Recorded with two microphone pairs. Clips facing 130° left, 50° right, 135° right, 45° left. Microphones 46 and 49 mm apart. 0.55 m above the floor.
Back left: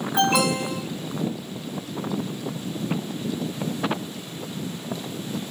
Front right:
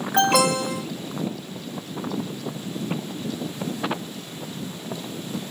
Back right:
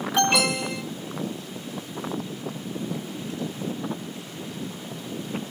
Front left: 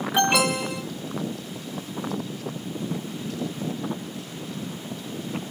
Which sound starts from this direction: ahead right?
An alarm, at 0.1 s.